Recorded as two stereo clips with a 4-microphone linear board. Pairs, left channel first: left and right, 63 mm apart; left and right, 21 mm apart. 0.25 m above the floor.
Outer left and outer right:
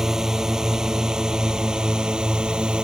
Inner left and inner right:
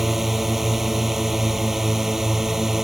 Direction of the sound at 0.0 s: 10° right (ahead or behind).